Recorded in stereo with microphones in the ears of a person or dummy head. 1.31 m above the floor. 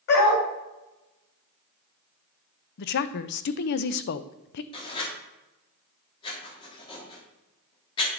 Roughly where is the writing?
Left.